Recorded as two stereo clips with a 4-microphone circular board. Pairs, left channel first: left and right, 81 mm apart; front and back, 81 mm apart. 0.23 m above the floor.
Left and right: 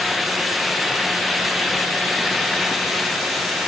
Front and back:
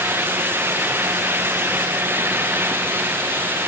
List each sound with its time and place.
Only background noise.